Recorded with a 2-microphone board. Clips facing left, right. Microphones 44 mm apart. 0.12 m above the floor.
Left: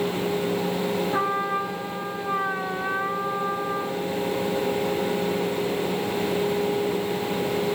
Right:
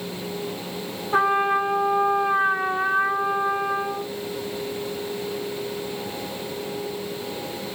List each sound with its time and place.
1.1 s a trumpet: 50° right (ahead or behind), 2.5 m